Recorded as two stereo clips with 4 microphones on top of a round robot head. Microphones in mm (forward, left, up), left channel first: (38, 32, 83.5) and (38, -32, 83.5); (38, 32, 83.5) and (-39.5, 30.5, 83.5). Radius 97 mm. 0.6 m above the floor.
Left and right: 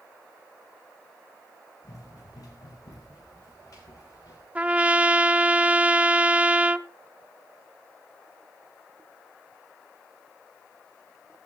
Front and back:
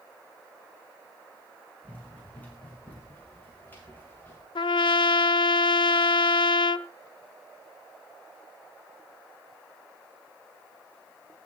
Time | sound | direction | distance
1.8 | running footsteps | 70° left | 10 m
4.5 | a trumpet | 20° right | 0.6 m